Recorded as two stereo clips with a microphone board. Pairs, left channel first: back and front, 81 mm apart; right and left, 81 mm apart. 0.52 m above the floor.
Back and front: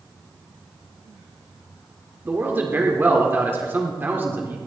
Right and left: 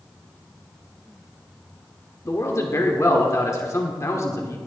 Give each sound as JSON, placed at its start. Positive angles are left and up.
{"t": 2.2, "sound": "a man speaking", "azimuth_deg": -55, "distance_m": 1.5}